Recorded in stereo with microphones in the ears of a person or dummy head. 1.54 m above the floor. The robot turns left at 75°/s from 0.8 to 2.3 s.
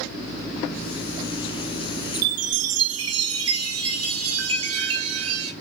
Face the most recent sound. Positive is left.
turn(degrees=-80)